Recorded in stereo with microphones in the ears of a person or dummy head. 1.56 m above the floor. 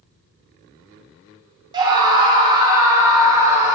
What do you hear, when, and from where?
1.7 s a scream: 25° right (ahead or behind), 1.6 m; by 3.8 s 20° right (ahead or behind), 3.5 m